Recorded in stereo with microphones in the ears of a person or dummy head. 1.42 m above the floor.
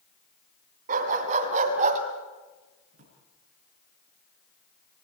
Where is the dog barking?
45° right (ahead or behind), 4 m; by 2.0 s 40° right (ahead or behind), 3 m.